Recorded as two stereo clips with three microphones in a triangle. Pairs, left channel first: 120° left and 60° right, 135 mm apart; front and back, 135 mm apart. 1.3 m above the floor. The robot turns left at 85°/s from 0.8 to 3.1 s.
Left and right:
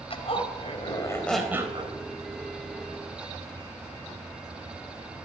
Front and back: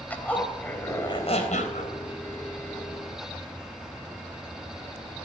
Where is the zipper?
80° left, 4 m; by 2.0 s 20° right, 4 m.